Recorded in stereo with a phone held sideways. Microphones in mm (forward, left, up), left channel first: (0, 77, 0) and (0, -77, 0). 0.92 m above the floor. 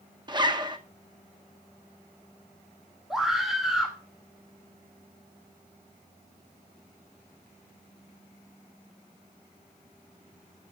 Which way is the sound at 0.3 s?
30° right (ahead or behind).